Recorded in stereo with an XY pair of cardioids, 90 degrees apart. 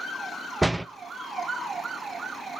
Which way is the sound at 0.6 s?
10° right.